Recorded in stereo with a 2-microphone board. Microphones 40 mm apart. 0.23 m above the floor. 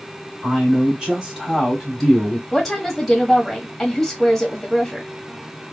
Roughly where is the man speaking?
Right.